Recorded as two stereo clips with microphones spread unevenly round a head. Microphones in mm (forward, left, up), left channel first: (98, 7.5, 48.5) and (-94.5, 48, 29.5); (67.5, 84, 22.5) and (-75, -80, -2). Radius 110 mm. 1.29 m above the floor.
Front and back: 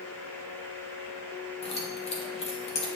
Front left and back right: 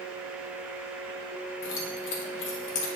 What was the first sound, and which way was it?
Keys jangling, 40° left.